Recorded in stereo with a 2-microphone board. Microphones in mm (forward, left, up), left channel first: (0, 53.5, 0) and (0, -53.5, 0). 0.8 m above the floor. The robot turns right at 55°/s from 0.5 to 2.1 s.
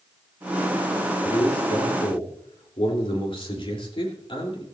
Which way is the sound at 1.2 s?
75° left.